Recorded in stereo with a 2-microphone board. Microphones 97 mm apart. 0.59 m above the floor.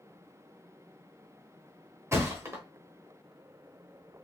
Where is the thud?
25° right (ahead or behind), 0.8 m.